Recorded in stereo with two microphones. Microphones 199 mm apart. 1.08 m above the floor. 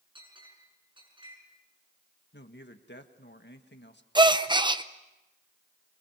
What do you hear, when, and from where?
0.1 s a clink: 25° right (ahead or behind), 7.5 m
2.3 s a man speaking: 65° left (ahead or behind), 1.6 m
4.2 s a gasp: 20° right (ahead or behind), 0.7 m